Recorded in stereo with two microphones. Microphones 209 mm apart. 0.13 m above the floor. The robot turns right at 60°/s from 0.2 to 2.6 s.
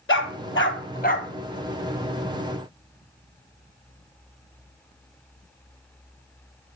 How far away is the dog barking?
About 1.3 m.